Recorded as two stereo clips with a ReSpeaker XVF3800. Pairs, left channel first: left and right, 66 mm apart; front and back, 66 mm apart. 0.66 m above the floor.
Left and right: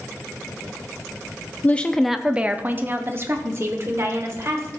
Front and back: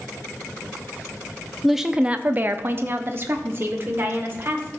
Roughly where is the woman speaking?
Left.